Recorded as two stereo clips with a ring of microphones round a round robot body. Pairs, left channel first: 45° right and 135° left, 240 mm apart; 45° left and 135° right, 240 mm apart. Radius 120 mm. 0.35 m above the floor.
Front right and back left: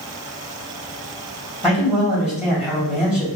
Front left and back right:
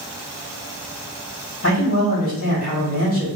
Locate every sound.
1.6 s a man speaking: 50° left, 2.0 m